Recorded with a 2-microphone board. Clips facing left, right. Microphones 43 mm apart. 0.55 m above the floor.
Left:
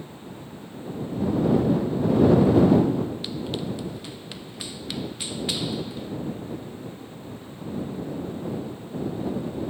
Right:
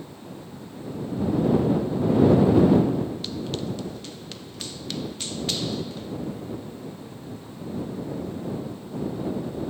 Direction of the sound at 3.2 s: 15° left (ahead or behind).